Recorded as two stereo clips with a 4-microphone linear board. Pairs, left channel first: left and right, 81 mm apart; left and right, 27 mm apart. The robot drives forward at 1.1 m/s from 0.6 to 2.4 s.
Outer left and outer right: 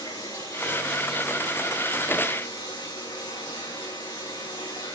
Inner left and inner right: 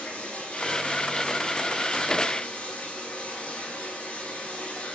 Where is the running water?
65° left (ahead or behind), 8.5 m; by 5.0 s 80° left, 8 m.